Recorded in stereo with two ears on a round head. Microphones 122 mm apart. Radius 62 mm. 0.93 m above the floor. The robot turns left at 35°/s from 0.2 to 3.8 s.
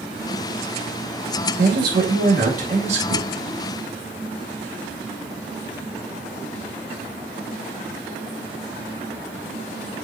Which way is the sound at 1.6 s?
80° right.